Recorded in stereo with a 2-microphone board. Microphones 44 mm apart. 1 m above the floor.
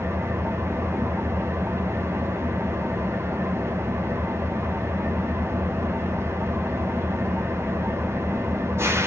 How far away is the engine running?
About 1.3 m.